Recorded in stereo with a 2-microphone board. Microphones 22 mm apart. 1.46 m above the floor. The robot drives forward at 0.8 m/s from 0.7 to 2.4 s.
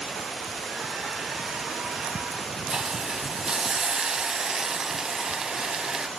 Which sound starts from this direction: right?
A hiss, at 2.7 s.